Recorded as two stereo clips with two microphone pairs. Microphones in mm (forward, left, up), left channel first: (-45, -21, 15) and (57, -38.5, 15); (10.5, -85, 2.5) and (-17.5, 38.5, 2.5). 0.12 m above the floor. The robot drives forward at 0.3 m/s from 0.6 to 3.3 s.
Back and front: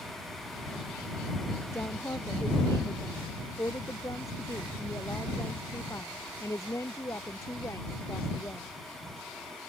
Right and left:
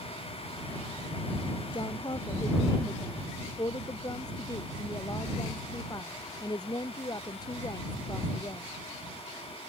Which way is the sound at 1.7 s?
125° right.